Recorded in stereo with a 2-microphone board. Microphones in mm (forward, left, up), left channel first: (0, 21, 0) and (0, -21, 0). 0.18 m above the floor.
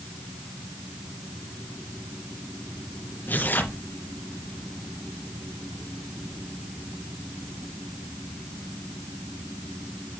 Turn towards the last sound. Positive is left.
turn(degrees=50)  # may be behind; listen again after turning